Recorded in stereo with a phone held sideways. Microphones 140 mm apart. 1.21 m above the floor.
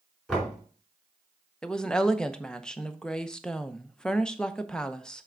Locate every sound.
0.3 s knocking: centre (ahead or behind), 4 m
1.6 s a woman speaking: 5° left (ahead or behind), 0.7 m